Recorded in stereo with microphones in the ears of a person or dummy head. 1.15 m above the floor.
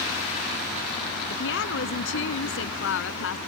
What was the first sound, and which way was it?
A woman speaking, 75° left (ahead or behind).